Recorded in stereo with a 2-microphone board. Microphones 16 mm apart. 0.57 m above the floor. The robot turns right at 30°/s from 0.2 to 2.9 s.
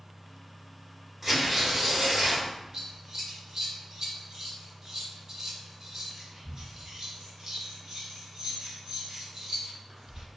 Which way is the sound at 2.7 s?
30° right (ahead or behind).